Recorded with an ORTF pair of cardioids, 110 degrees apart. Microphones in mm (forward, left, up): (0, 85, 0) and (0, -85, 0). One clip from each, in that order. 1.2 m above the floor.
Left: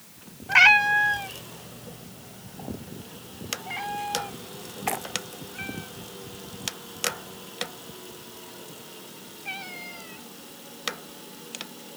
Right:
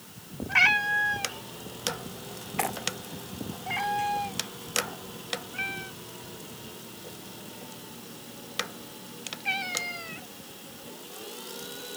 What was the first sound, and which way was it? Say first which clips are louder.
A cat meowing: left 6 dB; 35° left.